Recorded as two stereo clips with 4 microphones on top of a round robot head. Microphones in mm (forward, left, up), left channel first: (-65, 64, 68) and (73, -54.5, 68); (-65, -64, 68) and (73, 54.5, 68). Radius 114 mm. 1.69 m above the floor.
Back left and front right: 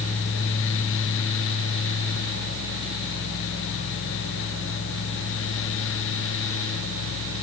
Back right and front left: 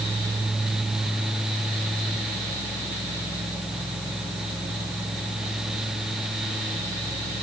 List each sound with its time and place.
Only background noise.